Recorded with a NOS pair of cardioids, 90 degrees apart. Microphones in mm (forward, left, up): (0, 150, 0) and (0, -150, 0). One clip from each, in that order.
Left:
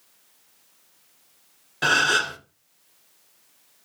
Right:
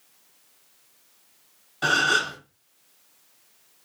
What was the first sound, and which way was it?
A gasp, 30° left.